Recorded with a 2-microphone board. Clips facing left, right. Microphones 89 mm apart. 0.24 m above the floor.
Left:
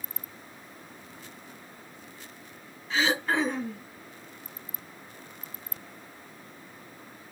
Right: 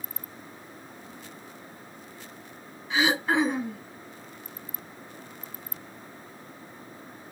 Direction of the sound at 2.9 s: 10° right (ahead or behind).